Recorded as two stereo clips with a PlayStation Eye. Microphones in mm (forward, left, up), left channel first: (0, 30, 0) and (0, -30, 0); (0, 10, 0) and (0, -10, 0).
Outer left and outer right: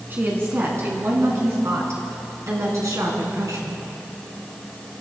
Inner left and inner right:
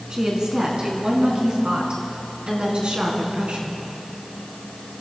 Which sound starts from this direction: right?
A woman speaking, at 0.1 s.